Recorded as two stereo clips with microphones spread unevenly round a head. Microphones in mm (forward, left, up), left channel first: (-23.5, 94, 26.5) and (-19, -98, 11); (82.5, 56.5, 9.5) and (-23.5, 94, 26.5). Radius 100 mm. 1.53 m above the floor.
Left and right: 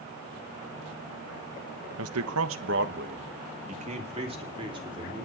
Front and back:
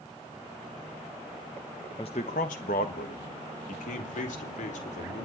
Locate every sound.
2.0 s a man speaking: 90° right, 1.1 m; by 5.3 s 20° right, 3.5 m